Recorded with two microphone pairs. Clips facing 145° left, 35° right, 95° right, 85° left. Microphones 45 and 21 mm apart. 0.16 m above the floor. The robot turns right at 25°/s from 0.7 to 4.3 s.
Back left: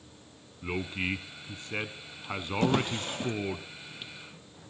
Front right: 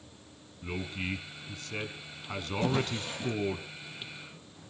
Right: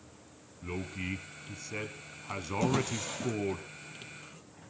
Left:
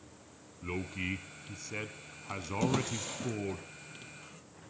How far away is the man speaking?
About 1.2 m.